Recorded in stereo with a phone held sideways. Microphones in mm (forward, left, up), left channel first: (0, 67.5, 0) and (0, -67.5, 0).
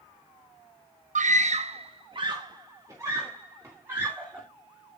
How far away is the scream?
About 0.7 m.